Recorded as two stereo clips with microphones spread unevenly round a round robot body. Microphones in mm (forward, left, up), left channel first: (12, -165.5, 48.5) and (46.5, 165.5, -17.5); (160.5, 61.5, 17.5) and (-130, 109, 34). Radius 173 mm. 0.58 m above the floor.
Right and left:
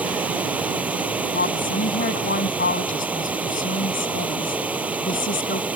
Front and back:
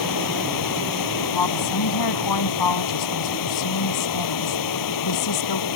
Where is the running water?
Straight ahead.